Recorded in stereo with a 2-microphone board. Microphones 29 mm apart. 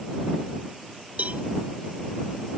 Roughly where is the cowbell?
Right.